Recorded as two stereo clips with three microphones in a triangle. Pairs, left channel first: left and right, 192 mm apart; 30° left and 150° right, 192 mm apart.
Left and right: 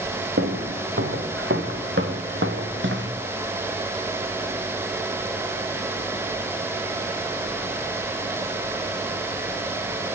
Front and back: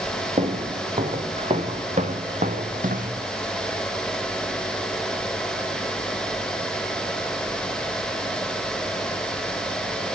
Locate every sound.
0.4 s footsteps: 90° right, 3.5 m; by 3.1 s 105° right, 2 m